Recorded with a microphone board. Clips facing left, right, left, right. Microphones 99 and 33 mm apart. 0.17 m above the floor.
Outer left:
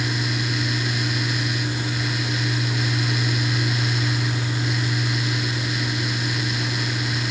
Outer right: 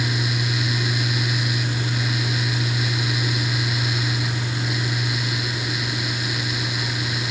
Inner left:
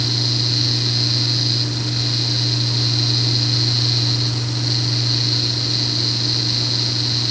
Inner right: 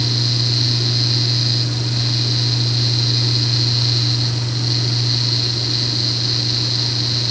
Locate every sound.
Only background noise.